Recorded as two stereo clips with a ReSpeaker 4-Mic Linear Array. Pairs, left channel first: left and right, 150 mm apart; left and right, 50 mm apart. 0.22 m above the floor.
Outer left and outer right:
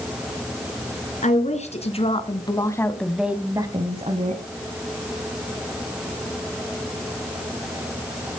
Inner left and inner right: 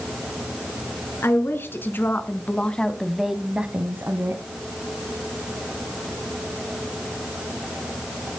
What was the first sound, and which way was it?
A woman speaking, 55° left (ahead or behind).